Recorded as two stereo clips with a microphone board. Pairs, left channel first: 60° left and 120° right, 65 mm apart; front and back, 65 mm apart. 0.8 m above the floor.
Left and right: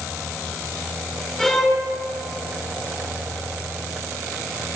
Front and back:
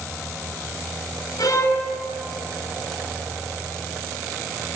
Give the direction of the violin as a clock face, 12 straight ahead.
1 o'clock.